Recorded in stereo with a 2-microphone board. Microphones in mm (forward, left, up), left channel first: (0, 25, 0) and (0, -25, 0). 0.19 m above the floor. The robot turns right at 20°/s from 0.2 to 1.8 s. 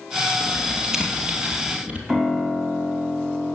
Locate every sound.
0.4 s typing on a keyboard: centre (ahead or behind), 2.5 m; by 2.0 s 25° right (ahead or behind), 2.5 m
2.1 s a piano: 10° right (ahead or behind), 1.5 m